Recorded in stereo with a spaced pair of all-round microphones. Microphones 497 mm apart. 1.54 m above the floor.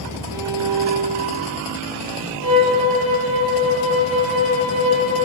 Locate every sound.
0.3 s a violin: 40° right (ahead or behind), 2 m
2.4 s a violin: 65° left (ahead or behind), 7 m